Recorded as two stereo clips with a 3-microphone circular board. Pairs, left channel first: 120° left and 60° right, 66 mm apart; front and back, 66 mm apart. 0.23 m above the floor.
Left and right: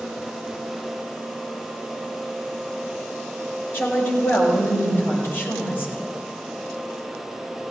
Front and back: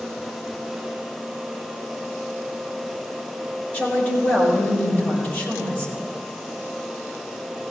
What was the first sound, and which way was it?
A woman speaking, 60° left.